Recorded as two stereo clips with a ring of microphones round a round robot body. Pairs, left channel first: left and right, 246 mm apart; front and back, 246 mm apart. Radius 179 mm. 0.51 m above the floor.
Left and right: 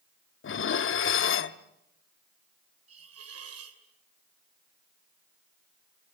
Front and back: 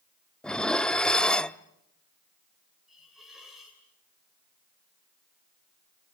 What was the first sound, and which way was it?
Dishes clattering, 85° left.